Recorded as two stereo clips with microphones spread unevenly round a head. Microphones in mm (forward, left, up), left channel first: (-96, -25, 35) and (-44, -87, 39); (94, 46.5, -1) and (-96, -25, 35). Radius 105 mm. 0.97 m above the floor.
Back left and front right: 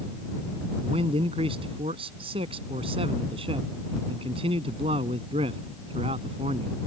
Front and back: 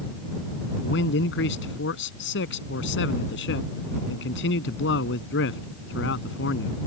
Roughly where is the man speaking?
Ahead.